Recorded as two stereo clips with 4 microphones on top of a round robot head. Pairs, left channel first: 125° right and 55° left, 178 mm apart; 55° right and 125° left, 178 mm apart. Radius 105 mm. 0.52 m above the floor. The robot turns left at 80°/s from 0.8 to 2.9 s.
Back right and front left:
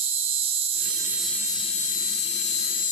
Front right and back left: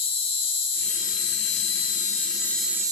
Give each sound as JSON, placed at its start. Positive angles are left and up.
{"t": 0.0, "sound": "an insect", "azimuth_deg": 0, "distance_m": 1.5}